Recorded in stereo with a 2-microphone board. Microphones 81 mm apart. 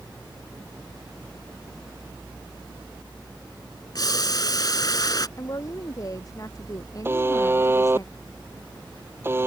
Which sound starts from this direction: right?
A buzzer, at 7.0 s.